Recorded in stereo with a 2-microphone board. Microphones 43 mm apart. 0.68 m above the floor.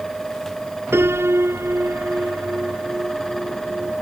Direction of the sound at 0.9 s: 70° right (ahead or behind).